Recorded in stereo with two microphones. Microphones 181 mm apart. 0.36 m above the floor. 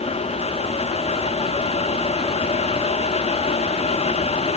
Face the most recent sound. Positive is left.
No sound to turn to.